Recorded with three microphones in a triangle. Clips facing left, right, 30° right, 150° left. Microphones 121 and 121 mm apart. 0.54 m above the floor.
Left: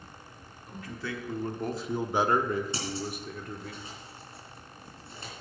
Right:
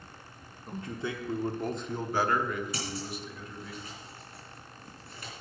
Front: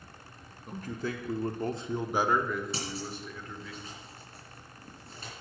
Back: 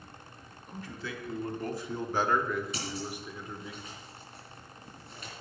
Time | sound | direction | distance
0.7 | a man speaking | 40° right | 1.2 m
2.7 | scissors | 25° left | 3.5 m